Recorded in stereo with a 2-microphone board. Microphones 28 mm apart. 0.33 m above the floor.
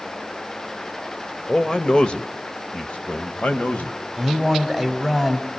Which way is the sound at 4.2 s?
Centre (ahead or behind).